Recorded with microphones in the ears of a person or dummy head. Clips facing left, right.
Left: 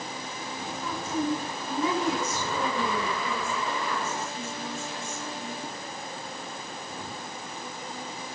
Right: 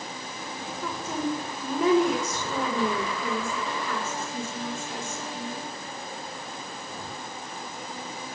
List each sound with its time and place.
0.8 s a woman speaking: 55° right (ahead or behind), 6 m